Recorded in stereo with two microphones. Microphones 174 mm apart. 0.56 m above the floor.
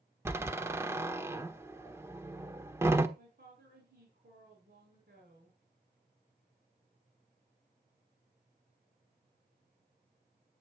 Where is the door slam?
15° right (ahead or behind), 1.3 m.